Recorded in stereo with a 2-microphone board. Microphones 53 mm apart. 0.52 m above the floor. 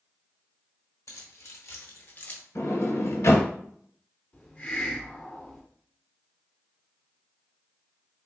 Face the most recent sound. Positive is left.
turn(degrees=35)  # may be behind; listen again after turning